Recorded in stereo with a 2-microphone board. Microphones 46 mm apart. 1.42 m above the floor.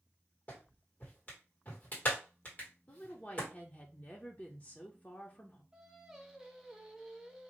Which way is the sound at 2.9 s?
35° left (ahead or behind).